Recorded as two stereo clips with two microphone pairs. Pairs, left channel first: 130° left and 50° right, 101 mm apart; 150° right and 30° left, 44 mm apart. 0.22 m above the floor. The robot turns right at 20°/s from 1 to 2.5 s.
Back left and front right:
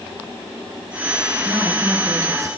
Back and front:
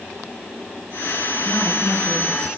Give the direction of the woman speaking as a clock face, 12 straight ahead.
4 o'clock.